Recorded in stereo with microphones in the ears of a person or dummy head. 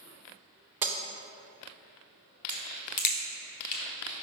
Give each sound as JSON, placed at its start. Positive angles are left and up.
{"t": 0.8, "sound": "breaking glass", "side_deg": -15, "distance_m": 0.6}
{"t": 2.5, "sound": "a crack", "side_deg": 40, "distance_m": 1.0}